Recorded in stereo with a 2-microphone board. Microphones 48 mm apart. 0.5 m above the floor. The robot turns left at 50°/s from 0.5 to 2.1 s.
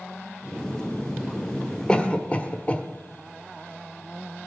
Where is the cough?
20° left (ahead or behind), 1.2 m; by 2.8 s 25° left (ahead or behind), 1.2 m.